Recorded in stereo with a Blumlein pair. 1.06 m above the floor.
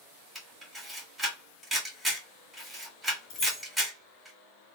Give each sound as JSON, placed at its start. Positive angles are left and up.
{"t": 0.3, "sound": "a camera shutter", "azimuth_deg": -5, "distance_m": 1.9}
{"t": 3.3, "sound": "keys jangling", "azimuth_deg": 40, "distance_m": 1.5}